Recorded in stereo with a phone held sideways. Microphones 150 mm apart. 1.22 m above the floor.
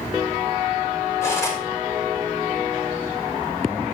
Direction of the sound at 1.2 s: 20° left (ahead or behind).